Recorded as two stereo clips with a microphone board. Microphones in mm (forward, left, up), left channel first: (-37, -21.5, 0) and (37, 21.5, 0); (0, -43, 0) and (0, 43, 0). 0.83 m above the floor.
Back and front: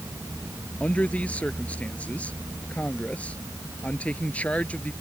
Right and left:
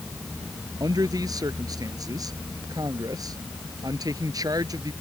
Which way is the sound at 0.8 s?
135° left.